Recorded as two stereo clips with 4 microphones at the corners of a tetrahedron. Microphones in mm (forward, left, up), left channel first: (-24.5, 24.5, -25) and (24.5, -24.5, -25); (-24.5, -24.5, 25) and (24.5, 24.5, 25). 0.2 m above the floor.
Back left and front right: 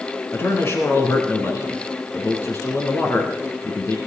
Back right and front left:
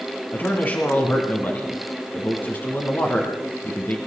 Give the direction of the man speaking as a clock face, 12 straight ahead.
6 o'clock.